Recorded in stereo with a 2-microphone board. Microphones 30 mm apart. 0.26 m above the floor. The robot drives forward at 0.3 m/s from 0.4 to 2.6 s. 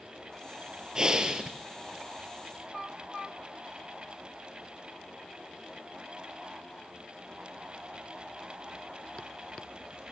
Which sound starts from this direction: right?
Breathing, at 0.9 s.